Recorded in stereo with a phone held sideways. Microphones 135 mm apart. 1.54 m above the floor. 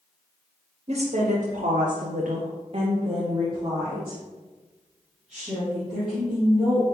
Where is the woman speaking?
50° right (ahead or behind), 0.9 m; by 6.8 s centre (ahead or behind), 3 m.